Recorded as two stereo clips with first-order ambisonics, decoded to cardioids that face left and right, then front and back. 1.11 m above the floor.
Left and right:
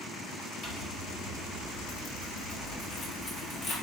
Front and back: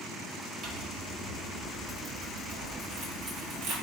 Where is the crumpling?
140° left, 1.9 m.